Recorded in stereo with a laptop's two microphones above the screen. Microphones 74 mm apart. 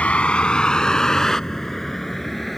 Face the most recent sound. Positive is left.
turn(degrees=5)  # may be behind; listen again after turning